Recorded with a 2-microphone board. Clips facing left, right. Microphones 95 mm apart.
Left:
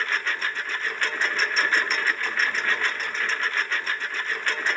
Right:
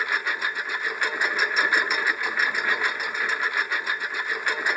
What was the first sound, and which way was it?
A lawn mower, 10° right (ahead or behind).